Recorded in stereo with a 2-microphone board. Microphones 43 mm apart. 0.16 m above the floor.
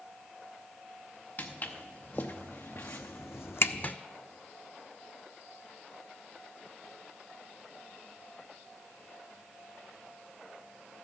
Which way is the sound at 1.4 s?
40° left (ahead or behind).